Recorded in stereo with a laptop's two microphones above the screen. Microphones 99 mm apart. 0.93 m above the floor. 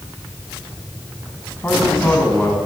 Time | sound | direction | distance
1.6 | a man speaking | 20° left (ahead or behind) | 8 m